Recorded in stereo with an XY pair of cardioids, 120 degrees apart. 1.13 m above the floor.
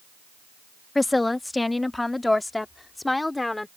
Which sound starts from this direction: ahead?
A woman speaking, at 0.9 s.